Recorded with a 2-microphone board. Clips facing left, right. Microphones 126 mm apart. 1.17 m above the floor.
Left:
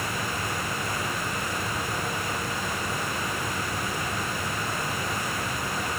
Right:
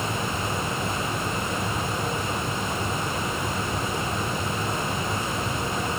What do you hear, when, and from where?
Only background noise.